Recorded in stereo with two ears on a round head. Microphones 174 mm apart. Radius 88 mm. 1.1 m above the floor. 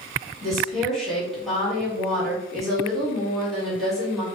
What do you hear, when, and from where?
0.4 s a woman speaking: centre (ahead or behind), 1.5 m